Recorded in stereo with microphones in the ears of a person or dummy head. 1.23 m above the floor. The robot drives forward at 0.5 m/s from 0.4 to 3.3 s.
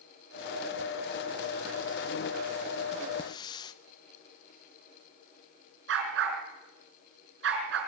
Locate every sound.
3.2 s a hiss: 20° left (ahead or behind), 0.7 m
5.9 s a dog barking: 75° right (ahead or behind), 5 m